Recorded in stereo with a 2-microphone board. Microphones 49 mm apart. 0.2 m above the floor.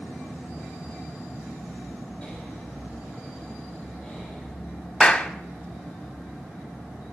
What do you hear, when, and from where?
2.2 s breathing: 20° left (ahead or behind), 7 m
5.0 s a clap: 20° left (ahead or behind), 0.8 m